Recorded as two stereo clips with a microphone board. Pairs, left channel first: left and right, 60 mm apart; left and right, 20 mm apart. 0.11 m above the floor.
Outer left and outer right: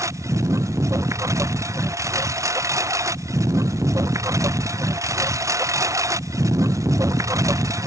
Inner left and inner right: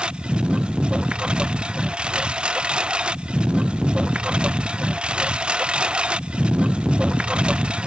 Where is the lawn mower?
65° right (ahead or behind); by 7.9 s 70° right (ahead or behind).